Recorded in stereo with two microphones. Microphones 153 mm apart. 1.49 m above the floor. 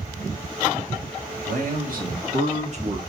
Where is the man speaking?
70° right (ahead or behind), 3 m; by 3.0 s 40° right (ahead or behind), 1.4 m.